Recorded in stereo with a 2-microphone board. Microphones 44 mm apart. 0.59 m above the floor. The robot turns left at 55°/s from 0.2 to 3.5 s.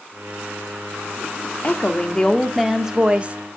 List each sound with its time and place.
1.6 s a woman speaking: 45° left, 1.1 m; by 3.4 s 45° right, 1.1 m